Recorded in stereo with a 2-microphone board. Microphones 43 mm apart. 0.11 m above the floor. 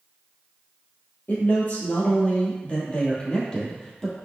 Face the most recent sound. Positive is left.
turn(degrees=15)  # may be behind; listen again after turning